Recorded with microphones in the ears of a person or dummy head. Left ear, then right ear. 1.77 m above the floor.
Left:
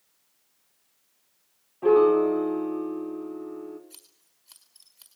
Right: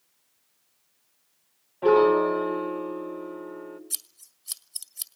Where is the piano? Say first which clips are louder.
Even; 30° right (ahead or behind), 1.5 m.